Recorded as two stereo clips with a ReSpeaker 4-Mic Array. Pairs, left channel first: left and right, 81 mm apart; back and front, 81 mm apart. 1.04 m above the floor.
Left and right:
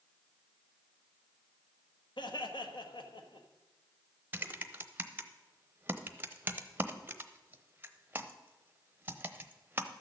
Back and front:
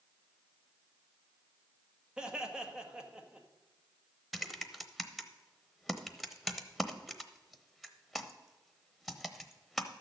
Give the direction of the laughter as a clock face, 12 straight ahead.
9 o'clock.